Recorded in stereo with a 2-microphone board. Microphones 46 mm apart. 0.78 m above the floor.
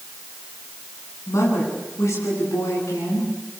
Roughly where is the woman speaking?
Left.